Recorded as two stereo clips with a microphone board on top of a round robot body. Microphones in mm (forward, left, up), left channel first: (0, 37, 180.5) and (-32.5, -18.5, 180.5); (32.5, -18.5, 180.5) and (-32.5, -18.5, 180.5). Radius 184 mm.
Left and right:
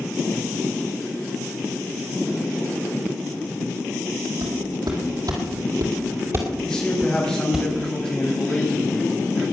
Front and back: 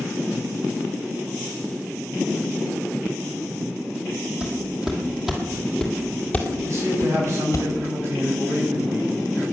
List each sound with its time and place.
4.4 s footsteps: 105° right, 2.5 m; by 7.6 s 35° right, 1.6 m
6.6 s a man speaking: 140° left, 5.5 m